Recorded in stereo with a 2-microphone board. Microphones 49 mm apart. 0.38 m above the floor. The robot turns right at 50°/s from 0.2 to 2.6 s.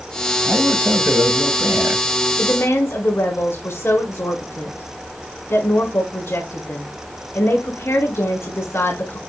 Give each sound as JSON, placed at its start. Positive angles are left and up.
{"t": 0.4, "sound": "a man speaking", "azimuth_deg": -130, "distance_m": 1.8}
{"t": 2.4, "sound": "a woman speaking", "side_deg": 55, "distance_m": 4.0}